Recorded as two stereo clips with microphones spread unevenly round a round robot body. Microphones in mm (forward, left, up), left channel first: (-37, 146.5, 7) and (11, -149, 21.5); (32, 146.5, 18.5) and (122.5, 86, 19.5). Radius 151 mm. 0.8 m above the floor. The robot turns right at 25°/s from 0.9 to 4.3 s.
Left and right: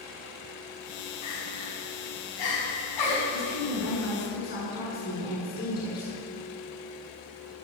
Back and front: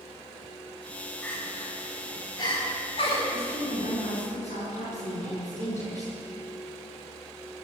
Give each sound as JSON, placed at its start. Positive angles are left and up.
{"t": 1.2, "sound": "crying", "azimuth_deg": 65, "distance_m": 7.5}
{"t": 3.3, "sound": "a woman speaking", "azimuth_deg": 130, "distance_m": 8.0}